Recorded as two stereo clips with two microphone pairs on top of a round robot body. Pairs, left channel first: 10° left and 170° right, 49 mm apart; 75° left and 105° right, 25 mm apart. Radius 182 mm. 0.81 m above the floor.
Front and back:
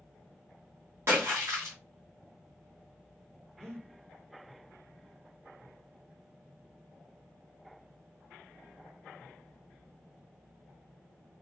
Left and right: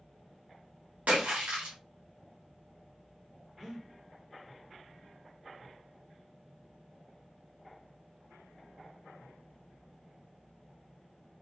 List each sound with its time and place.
1.1 s a splash: 135° right, 0.8 m
3.6 s breathing: 165° right, 1.1 m